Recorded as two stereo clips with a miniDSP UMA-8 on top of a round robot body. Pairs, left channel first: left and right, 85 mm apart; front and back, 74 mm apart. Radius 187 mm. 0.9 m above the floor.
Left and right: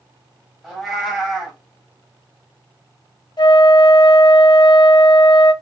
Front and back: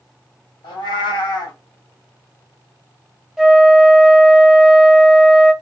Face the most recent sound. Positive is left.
turn(degrees=95)